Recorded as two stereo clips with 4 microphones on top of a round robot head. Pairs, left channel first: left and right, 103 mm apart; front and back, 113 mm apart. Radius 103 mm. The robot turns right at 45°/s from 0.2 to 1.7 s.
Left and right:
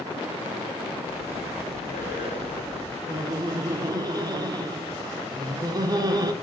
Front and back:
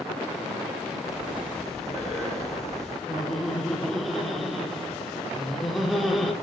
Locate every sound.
1.1 s breathing: 60° left, 2 m; by 3.0 s 90° left, 2 m
3.1 s laughter: 85° right, 0.9 m